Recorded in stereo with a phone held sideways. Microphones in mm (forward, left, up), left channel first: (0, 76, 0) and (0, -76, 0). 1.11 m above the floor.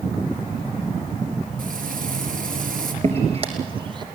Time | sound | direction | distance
1.6 | frying | 70° right (ahead or behind) | 4 m
3.0 | footsteps | 45° right (ahead or behind) | 4 m